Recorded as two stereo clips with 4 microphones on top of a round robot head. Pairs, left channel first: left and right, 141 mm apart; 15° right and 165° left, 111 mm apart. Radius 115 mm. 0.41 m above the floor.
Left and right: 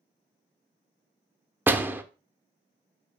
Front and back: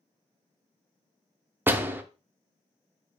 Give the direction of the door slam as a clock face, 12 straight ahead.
5 o'clock.